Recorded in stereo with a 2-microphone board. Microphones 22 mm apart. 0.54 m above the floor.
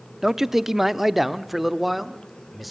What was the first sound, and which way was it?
A man speaking, 15° right (ahead or behind).